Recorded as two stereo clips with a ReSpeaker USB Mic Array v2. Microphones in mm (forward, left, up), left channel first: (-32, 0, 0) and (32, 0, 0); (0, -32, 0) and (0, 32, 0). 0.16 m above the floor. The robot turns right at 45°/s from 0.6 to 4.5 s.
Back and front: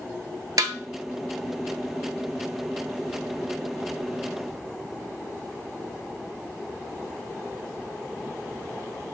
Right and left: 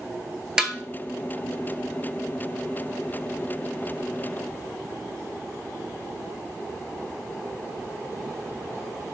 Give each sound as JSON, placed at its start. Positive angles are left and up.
{"t": 0.6, "sound": "a snare drum", "azimuth_deg": 15, "distance_m": 0.5}